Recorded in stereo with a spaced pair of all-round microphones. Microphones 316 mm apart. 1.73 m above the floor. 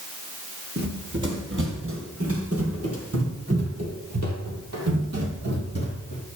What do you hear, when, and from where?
0.8 s running footsteps: 35° right (ahead or behind), 2.5 m; by 6.2 s 50° right (ahead or behind), 3.5 m